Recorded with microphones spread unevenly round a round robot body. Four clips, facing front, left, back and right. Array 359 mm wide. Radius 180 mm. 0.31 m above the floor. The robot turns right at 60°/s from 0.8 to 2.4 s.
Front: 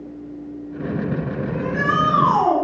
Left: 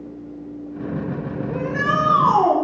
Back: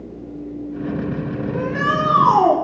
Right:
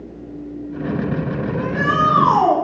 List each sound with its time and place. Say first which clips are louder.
1.5 s a shout: even, back 1 dB; 115° left, 7 m; by 2.5 s 170° left, 7 m